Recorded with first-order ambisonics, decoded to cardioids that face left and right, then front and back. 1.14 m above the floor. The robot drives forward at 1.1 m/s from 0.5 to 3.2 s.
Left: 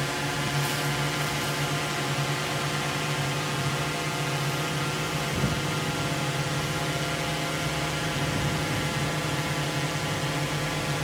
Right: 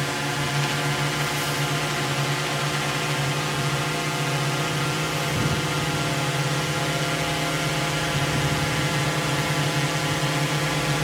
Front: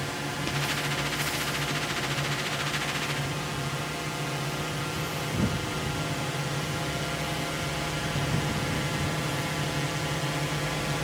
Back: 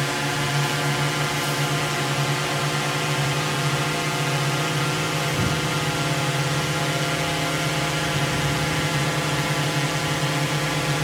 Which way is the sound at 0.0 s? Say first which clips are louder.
Right 3 dB, back 8 dB; 160° right.